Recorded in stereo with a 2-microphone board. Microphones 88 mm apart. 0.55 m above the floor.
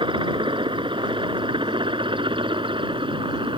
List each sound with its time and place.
0.0 s a helicopter: 75° right (ahead or behind)